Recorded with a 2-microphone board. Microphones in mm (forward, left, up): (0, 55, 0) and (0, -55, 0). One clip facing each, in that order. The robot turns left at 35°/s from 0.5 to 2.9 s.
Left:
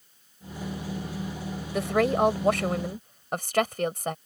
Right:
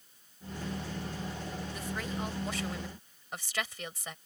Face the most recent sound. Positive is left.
turn(degrees=55)